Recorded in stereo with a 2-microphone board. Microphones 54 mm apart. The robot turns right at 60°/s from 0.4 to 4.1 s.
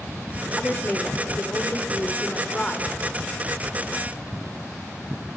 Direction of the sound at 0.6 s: 25° left.